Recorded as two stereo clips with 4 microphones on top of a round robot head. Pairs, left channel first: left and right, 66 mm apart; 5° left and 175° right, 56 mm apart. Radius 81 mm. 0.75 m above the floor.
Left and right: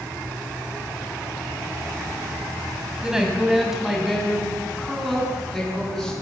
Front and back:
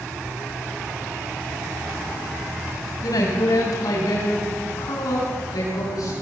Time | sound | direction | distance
3.0 | a woman speaking | 10° right | 4.5 m